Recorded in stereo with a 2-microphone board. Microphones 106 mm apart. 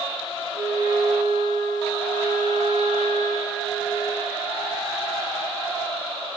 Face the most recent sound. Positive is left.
turn(degrees=-25)  # may be behind; listen again after turning